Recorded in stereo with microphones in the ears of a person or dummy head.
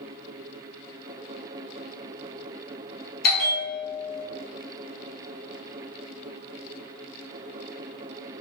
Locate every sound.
3.2 s a bell: 45° left (ahead or behind), 1.8 m